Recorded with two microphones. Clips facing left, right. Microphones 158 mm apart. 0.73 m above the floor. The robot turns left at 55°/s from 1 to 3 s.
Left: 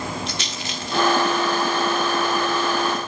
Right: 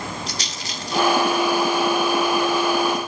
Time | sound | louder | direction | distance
0.3 | a rattle | left 2 dB | 35° right (ahead or behind) | 1.3 m